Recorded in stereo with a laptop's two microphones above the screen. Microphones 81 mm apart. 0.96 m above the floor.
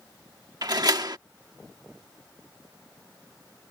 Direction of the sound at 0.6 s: 55° right (ahead or behind).